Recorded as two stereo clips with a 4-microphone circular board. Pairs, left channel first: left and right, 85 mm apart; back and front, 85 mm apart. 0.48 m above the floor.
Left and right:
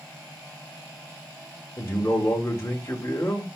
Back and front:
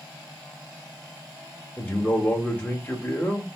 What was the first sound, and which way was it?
A man speaking, 125° left.